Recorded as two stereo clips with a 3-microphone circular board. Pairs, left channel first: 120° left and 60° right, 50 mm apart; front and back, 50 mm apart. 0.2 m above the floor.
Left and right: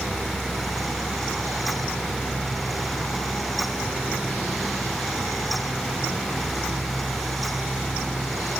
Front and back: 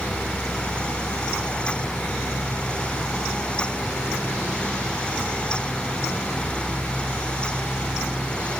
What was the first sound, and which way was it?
Only background noise.